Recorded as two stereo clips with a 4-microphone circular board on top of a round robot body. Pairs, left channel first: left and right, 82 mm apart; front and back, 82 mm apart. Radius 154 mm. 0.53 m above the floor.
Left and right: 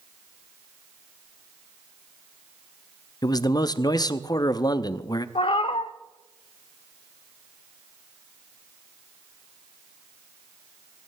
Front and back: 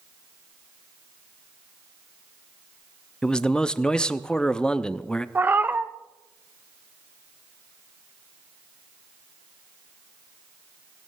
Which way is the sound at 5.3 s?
110° left.